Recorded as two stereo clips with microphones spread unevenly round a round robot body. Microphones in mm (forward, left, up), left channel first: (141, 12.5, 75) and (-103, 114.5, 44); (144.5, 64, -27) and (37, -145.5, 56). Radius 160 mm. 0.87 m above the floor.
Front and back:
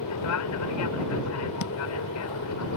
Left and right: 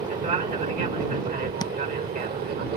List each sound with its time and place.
0.0 s an aircraft: 55° right; by 2.8 s 65° right
1.6 s tapping: 10° right